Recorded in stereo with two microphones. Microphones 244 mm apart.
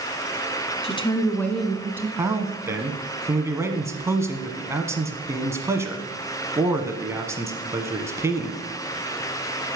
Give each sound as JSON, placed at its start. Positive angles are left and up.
{"t": 0.8, "sound": "a woman speaking", "side_deg": 25, "distance_m": 1.3}
{"t": 2.2, "sound": "a man speaking", "side_deg": -10, "distance_m": 1.3}